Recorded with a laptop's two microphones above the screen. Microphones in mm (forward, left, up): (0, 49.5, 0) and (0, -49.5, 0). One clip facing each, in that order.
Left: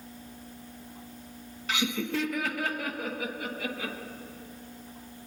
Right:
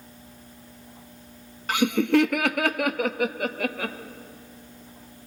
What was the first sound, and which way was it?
Laughter, 50° right (ahead or behind).